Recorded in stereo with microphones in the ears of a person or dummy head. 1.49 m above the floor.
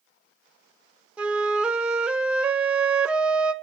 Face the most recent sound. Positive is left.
turn(degrees=-5)  # may be behind; listen again after turning